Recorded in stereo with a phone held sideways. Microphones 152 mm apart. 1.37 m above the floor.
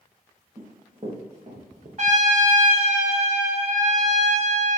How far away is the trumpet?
About 1.8 m.